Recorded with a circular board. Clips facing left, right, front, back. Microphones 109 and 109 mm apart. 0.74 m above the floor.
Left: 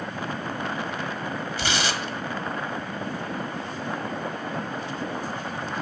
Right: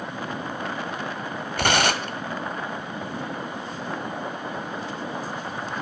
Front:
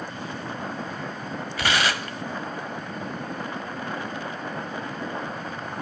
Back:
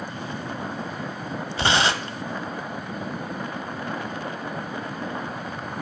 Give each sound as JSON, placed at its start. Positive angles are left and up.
{"t": 1.6, "sound": "tearing paper", "azimuth_deg": -120, "distance_m": 1.2}